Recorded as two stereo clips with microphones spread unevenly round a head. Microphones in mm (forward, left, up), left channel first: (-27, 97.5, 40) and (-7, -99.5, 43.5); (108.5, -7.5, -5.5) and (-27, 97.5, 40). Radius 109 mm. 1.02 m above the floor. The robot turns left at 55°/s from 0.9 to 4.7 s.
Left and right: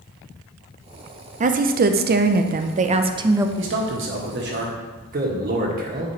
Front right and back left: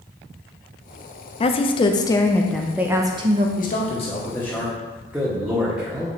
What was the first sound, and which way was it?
A woman speaking, 45° right.